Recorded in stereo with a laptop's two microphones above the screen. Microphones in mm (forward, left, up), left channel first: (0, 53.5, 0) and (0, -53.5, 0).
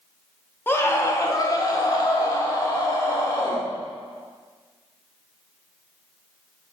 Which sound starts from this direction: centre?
A scream, at 0.7 s.